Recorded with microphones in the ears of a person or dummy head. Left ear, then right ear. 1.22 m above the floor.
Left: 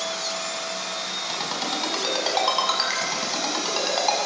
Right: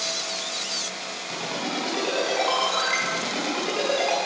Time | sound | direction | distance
1.3 | a ringtone | 55° left (ahead or behind) | 6 m